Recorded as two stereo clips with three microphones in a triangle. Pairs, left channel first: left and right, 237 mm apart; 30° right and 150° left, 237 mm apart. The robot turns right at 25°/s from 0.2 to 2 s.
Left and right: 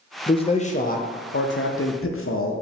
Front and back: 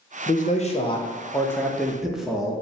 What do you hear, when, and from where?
0.3 s a man speaking: 20° left, 0.6 m; by 2.5 s 60° left, 0.6 m